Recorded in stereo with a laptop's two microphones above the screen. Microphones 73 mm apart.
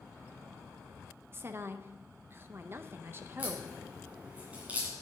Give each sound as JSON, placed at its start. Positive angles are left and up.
{"t": 1.3, "sound": "a woman speaking", "side_deg": -35, "distance_m": 0.6}
{"t": 3.4, "sound": "a crack", "side_deg": -20, "distance_m": 2.5}